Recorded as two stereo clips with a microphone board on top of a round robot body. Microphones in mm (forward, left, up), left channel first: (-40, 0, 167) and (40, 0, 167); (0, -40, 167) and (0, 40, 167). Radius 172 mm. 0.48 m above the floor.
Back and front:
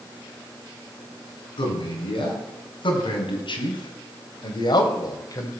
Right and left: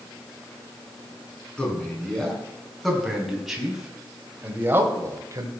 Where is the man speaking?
170° right, 7 m; by 5.5 s 135° left, 3 m.